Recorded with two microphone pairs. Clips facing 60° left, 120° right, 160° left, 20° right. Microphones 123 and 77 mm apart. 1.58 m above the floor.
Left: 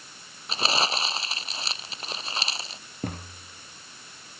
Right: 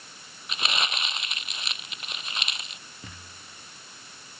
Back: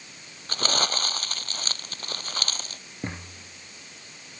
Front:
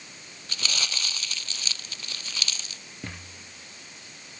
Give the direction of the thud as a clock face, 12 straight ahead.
9 o'clock.